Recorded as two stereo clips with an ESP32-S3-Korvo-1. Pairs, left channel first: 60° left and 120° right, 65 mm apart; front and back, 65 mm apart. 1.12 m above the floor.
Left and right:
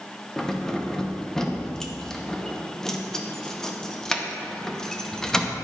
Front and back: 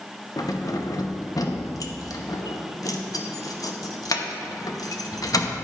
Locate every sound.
0.4 s keys jangling: 20° right, 0.7 m